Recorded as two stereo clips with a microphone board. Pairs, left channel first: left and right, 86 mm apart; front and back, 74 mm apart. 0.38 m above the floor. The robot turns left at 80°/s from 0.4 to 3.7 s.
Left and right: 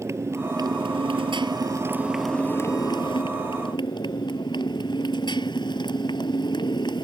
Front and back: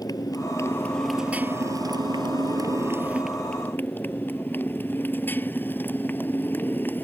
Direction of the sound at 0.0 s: 35° right.